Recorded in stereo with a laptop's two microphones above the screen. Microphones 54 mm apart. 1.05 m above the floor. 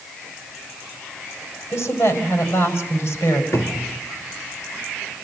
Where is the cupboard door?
70° left (ahead or behind), 2.5 m.